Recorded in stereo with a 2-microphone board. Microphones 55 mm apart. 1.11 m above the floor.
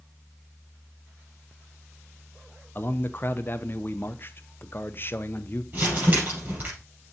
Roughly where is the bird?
I don't hear a bird.